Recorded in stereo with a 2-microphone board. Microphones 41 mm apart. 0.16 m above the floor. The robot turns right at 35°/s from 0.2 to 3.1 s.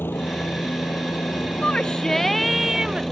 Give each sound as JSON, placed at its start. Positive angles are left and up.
{"t": 0.0, "sound": "a helicopter", "azimuth_deg": 65}
{"t": 1.6, "sound": "a shout", "azimuth_deg": 150}